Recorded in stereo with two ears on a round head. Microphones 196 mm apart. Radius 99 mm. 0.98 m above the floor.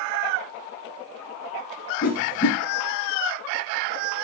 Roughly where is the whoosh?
Left.